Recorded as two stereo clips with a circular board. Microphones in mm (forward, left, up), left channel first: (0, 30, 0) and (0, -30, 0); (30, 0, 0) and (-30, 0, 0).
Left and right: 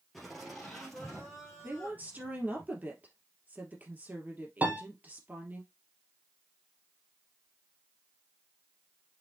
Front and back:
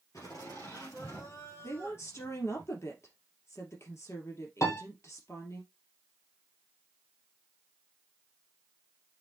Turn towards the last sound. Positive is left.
turn(degrees=-30)